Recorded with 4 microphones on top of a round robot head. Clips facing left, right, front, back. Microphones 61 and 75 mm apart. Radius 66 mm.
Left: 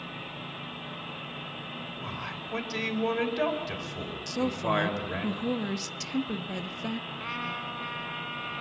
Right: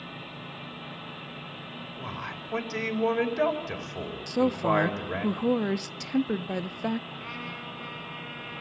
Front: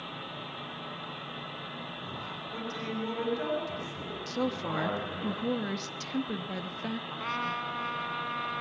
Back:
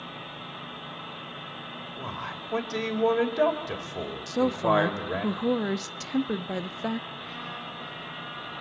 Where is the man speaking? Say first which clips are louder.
Right 3 dB, back 4 dB; 155° right, 4 m.